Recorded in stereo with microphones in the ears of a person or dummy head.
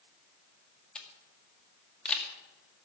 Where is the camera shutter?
5° left (ahead or behind), 1.9 m.